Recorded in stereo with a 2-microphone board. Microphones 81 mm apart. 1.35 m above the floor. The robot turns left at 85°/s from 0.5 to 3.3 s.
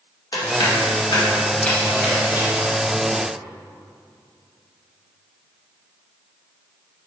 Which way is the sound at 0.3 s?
60° left (ahead or behind).